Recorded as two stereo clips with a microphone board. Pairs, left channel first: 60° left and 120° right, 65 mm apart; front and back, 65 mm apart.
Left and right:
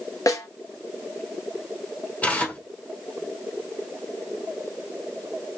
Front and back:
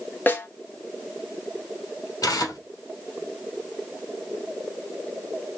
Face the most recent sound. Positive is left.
turn(degrees=-5)